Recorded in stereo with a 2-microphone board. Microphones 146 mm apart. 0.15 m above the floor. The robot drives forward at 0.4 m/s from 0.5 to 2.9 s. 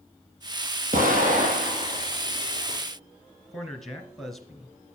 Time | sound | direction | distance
0.9 | an explosion | 65° right (ahead or behind) | 2.5 m
3.5 | a man speaking | centre (ahead or behind) | 1.6 m